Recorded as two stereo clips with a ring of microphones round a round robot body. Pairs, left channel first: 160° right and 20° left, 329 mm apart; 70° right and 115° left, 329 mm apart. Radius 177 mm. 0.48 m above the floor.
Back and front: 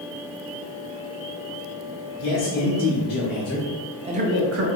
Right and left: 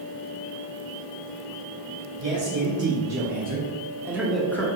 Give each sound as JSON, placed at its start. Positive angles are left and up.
{"t": 2.2, "sound": "a man speaking", "azimuth_deg": 165, "distance_m": 1.6}